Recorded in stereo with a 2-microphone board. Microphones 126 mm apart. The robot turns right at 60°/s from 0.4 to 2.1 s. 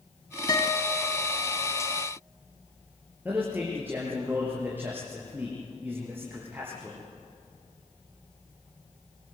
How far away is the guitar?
About 1.8 m.